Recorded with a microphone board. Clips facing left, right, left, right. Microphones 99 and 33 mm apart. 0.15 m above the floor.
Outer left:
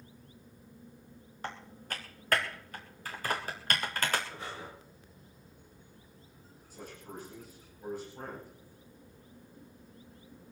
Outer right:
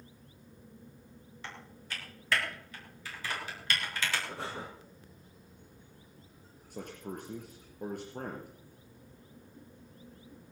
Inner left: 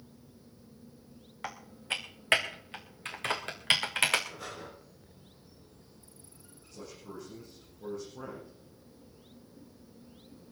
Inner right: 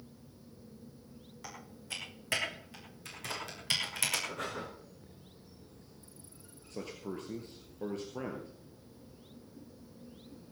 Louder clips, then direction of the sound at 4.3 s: Outer right 3 dB, inner right 4 dB; 80° right.